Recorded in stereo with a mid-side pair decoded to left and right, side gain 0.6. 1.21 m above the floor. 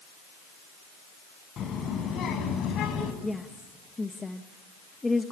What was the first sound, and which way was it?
A child speaking, 45° left.